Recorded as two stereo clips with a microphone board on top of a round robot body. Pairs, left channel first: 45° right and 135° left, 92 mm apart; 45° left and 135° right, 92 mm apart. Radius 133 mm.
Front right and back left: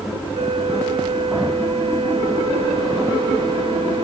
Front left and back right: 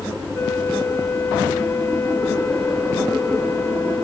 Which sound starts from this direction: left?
A flute, at 0.3 s.